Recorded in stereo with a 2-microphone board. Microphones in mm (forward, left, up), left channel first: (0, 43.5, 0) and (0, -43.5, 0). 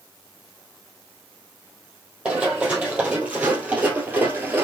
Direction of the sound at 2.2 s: 10° right (ahead or behind).